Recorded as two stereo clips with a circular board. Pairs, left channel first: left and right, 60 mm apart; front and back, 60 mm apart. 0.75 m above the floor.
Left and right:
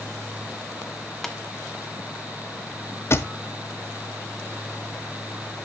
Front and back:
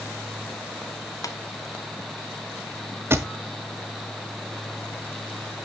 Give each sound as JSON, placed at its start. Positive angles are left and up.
{"t": 1.2, "sound": "tapping", "azimuth_deg": 5, "distance_m": 1.1}
{"t": 3.1, "sound": "a thud", "azimuth_deg": 135, "distance_m": 1.0}